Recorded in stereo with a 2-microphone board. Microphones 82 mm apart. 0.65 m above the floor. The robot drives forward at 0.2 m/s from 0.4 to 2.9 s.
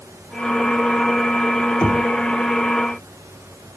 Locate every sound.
1.8 s knocking: 55° left (ahead or behind), 3.5 m; by 2.0 s 60° left (ahead or behind), 3.5 m